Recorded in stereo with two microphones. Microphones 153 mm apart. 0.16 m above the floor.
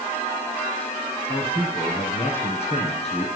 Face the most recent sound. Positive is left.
turn(degrees=45)  # may be behind; listen again after turning